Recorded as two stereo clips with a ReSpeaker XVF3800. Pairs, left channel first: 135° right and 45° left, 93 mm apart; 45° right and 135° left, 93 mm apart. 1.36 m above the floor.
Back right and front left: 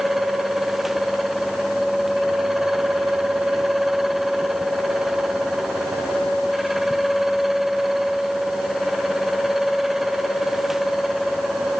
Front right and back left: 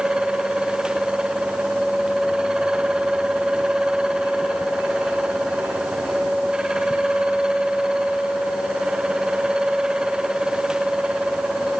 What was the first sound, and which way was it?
Only background noise.